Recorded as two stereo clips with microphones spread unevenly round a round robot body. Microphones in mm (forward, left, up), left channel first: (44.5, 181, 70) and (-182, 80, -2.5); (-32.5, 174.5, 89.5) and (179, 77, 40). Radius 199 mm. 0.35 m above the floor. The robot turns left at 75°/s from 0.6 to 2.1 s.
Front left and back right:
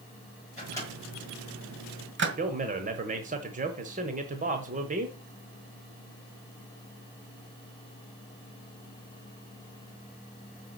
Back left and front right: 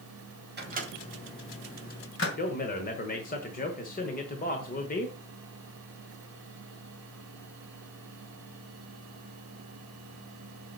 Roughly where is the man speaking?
Behind right.